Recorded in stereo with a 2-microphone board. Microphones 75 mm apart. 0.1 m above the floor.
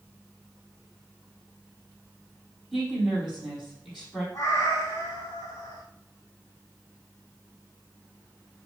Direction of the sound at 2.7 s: Centre (ahead or behind).